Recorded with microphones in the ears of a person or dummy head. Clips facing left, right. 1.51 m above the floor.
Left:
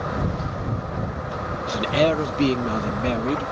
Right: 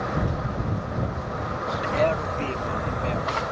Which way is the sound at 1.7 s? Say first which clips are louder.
Left 3 dB; 50° left (ahead or behind).